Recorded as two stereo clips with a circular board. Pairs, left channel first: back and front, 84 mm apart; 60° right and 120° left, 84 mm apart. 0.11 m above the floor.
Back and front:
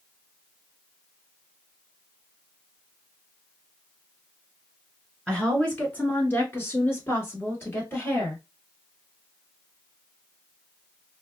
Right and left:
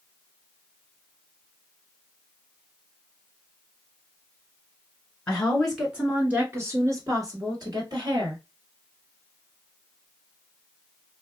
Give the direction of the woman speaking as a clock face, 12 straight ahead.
4 o'clock.